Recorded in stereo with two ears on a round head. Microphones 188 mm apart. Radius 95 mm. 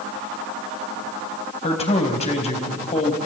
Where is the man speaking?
30° left (ahead or behind), 4 m.